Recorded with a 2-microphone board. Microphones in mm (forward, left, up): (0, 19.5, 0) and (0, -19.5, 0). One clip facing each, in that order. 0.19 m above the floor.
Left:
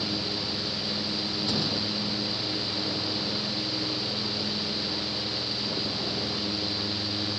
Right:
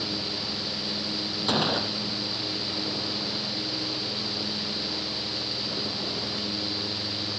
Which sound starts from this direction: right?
A gunshot, at 1.5 s.